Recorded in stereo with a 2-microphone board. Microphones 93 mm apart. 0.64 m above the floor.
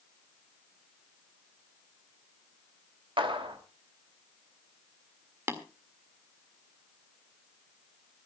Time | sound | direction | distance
3.2 | a clap | 70° right (ahead or behind) | 2.5 m
5.5 | tapping | 30° right (ahead or behind) | 1.8 m